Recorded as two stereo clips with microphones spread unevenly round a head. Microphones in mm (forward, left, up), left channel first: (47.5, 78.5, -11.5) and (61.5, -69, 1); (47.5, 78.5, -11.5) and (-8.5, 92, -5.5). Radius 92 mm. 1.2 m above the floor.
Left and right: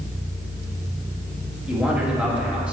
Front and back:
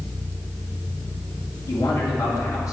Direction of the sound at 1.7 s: 5° right.